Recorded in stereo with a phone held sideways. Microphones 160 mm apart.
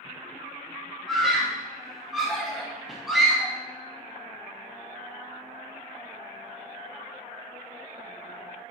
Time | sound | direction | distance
1.1 | a scream | centre (ahead or behind) | 1.7 m